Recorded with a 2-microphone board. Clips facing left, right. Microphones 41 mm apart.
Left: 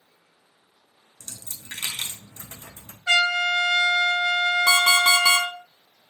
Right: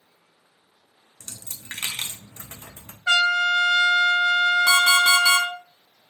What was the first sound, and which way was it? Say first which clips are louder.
A dropped coin: even; 35° right (ahead or behind).